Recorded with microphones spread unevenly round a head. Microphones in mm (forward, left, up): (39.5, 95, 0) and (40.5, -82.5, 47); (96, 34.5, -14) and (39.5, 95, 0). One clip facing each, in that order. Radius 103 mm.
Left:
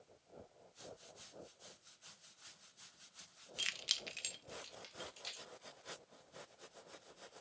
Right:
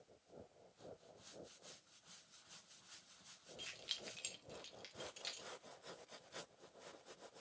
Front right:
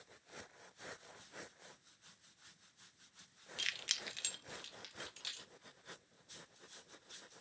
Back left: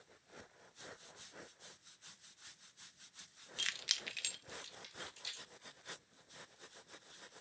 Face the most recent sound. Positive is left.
turn(degrees=-25)